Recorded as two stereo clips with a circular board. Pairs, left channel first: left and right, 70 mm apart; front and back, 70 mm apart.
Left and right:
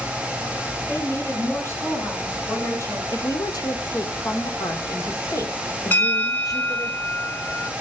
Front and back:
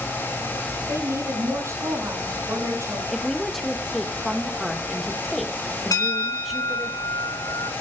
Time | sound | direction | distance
0.9 | a woman speaking | 135° left | 5.5 m
3.1 | a woman speaking | 85° left | 1.3 m
5.9 | a bell | 25° left | 1.8 m